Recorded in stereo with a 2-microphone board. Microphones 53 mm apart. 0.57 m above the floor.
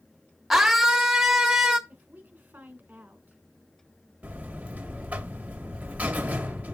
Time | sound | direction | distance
0.5 | a scream | 5° right (ahead or behind) | 1.5 m
1.9 | a woman speaking | 35° right (ahead or behind) | 2 m
4.2 | a buzzer | 25° right (ahead or behind) | 1.5 m